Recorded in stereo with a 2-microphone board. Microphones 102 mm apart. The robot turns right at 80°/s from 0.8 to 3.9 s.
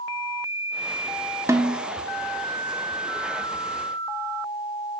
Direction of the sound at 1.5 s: 30° right (ahead or behind).